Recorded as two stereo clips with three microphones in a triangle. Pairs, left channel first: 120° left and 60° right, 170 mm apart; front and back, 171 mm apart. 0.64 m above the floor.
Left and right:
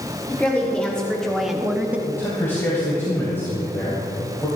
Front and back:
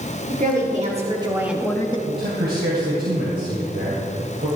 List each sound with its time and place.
0.3 s a woman speaking: 160° right, 2 m; by 2.0 s 10° left, 1.1 m
2.1 s a man speaking: 165° right, 3 m